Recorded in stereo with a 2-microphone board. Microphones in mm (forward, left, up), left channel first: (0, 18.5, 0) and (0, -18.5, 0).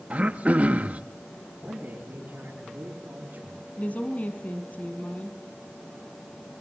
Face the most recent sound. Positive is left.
turn(degrees=50)  # may be behind; listen again after turning